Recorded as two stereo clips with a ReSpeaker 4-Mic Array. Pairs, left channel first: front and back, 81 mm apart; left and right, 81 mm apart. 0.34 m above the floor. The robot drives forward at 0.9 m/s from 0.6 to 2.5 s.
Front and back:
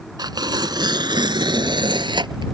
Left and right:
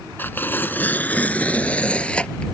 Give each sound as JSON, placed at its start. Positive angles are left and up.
{"t": 0.2, "sound": "tearing paper", "azimuth_deg": 155}